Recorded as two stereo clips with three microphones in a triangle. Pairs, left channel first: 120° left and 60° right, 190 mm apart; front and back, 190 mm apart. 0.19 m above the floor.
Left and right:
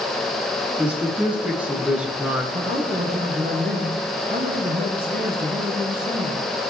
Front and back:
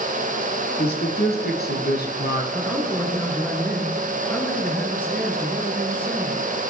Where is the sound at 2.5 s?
80° right, 3 m.